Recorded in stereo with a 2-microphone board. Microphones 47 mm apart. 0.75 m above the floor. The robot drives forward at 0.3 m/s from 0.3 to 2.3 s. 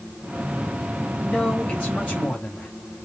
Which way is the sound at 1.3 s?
30° left (ahead or behind).